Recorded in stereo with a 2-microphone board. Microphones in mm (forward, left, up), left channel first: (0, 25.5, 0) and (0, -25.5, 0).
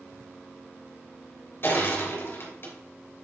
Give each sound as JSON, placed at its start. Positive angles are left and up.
{"t": 1.6, "sound": "crushing", "side_deg": 50, "distance_m": 2.5}